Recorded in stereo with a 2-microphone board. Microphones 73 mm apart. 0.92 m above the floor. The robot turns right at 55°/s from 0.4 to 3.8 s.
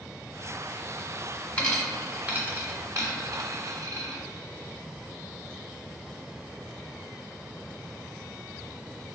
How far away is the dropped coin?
About 1.2 m.